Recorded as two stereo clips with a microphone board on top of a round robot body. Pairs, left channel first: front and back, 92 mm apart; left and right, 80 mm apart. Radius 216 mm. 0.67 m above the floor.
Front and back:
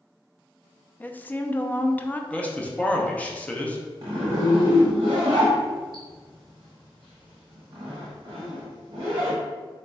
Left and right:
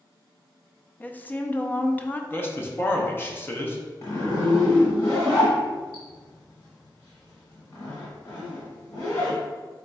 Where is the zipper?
140° left, 0.9 m.